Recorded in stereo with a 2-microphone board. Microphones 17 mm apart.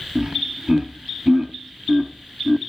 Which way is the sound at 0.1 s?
35° right (ahead or behind).